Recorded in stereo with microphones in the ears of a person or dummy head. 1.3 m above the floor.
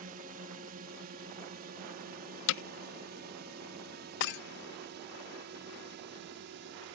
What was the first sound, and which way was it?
A drone, 45° right (ahead or behind).